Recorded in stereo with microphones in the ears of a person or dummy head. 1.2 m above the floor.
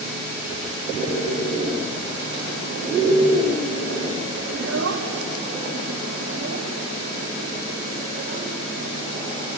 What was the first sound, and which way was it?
A child speaking, 80° right.